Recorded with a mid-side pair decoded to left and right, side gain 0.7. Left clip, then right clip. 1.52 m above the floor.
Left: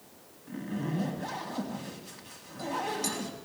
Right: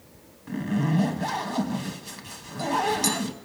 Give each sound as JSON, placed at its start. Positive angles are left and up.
{"t": 0.5, "sound": "a zipper", "azimuth_deg": -50, "distance_m": 2.0}